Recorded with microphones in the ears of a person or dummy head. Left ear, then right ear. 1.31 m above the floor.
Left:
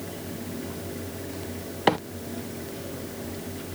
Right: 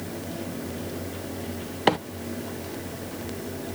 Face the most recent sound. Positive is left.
turn(degrees=0)  # may be behind; listen again after turning